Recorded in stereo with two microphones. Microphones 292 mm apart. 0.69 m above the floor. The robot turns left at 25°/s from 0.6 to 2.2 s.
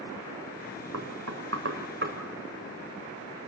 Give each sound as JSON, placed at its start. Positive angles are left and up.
{"t": 0.9, "sound": "knocking", "side_deg": -65, "distance_m": 3.0}